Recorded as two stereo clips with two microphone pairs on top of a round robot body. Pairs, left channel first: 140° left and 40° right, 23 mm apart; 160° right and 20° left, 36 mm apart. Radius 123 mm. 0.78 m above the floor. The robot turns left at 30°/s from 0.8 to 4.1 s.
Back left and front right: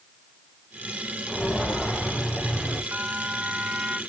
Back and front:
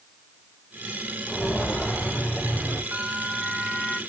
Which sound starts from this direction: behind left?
Footsteps, at 1.3 s.